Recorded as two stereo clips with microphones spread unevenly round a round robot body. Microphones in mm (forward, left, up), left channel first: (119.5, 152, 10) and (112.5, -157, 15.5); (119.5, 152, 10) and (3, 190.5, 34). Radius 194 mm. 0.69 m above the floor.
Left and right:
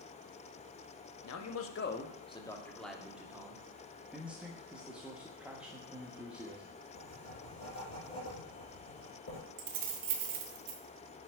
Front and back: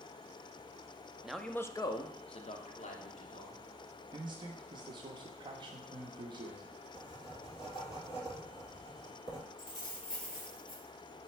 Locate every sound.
1.2 s a man speaking: 70° left, 0.8 m; by 3.6 s 10° right, 1.7 m
4.1 s a man speaking: 175° right, 0.6 m
6.9 s writing: 55° left, 3.5 m
9.6 s keys jangling: 70° right, 0.9 m